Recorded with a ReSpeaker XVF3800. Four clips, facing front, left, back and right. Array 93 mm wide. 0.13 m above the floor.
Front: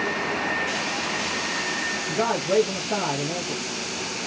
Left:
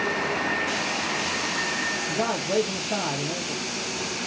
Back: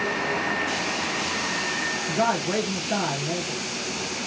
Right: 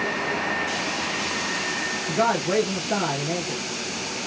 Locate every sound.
2.1 s a man speaking: 105° right, 2.5 m